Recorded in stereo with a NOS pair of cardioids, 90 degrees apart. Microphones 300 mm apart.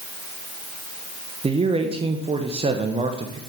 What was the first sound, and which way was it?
A man speaking, 20° right.